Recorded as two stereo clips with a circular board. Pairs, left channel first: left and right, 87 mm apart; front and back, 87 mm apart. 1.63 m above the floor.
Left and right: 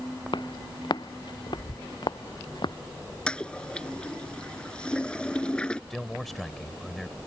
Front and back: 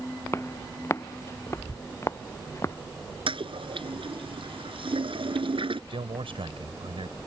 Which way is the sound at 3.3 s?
170° left.